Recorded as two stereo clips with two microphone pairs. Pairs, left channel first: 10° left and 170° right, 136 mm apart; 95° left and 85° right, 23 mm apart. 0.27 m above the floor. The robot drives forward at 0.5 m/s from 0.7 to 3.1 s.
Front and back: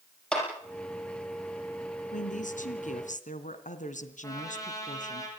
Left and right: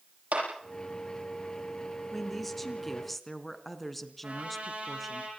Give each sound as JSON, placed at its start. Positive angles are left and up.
{"t": 0.3, "sound": "a clap", "azimuth_deg": -75, "distance_m": 9.5}
{"t": 2.1, "sound": "a woman speaking", "azimuth_deg": 15, "distance_m": 3.5}
{"t": 4.2, "sound": "a trumpet", "azimuth_deg": -55, "distance_m": 8.5}